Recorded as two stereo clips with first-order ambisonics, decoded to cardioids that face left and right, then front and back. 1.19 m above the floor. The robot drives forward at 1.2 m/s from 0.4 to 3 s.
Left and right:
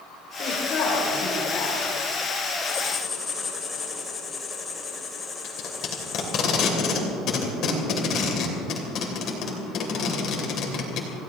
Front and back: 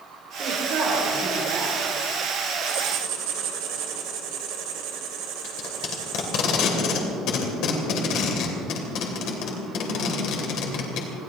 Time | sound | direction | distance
0.4 | a woman speaking | 135° left | 4 m
2.7 | writing | 160° left | 2 m
5.4 | tape being pulled | 40° left | 3 m